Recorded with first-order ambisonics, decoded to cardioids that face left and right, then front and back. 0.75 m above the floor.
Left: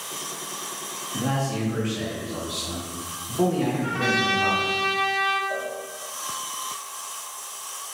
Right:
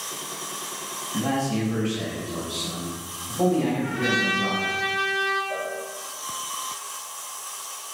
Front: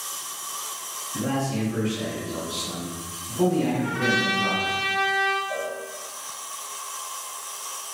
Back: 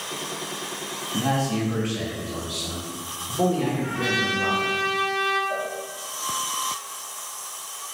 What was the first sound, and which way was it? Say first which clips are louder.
A man speaking: right 1 dB, back 3 dB; 170° right.